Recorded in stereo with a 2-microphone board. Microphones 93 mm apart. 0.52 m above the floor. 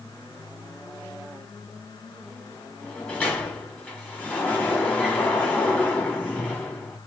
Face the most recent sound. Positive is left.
turn(degrees=15)  # may be behind; listen again after turning